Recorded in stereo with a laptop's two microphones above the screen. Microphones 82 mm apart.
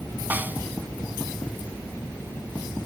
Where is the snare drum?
20° right (ahead or behind).